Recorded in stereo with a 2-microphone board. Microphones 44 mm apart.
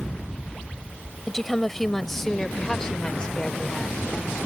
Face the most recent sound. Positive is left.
turn(degrees=25)  # may be behind; listen again after turning